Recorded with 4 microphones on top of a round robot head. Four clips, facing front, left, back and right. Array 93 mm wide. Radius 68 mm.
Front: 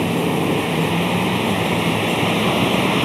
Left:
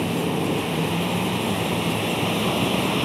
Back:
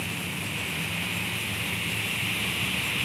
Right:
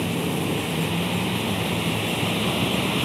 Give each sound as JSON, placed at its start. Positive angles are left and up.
{"t": 0.0, "sound": "a vehicle", "azimuth_deg": 10}